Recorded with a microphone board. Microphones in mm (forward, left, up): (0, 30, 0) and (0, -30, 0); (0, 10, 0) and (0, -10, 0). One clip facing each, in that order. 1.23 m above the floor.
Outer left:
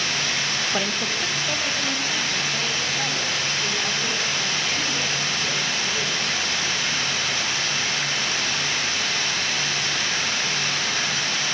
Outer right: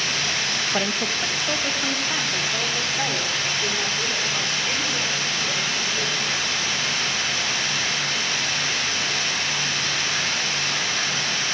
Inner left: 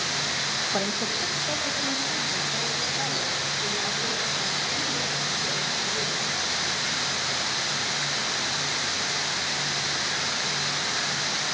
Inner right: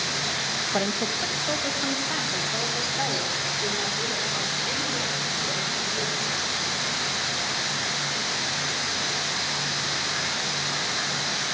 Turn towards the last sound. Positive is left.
turn(degrees=-10)  # may be behind; listen again after turning